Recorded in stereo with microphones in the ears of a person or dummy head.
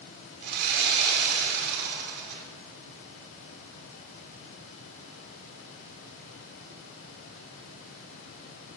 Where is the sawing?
60° right (ahead or behind), 4 m.